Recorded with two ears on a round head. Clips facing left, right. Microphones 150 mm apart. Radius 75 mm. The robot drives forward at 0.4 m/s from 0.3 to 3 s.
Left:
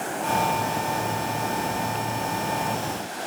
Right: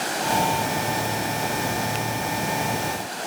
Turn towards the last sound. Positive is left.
No sound to turn to.